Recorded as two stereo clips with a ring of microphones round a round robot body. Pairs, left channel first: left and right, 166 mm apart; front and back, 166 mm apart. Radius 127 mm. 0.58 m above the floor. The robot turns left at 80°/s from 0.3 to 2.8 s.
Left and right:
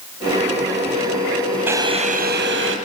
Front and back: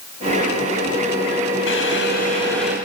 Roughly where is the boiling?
Ahead.